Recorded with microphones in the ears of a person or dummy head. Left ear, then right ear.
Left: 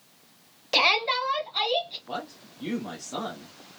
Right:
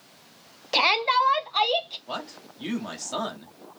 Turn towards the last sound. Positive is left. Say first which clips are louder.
# right 1 dB
turn(degrees=-80)